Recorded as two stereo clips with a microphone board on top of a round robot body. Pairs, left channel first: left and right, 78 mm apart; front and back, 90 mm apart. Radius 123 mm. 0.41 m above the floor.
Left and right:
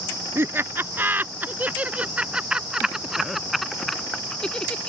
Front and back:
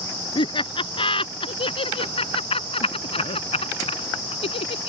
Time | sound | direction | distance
0.3 | laughter | 30° right | ?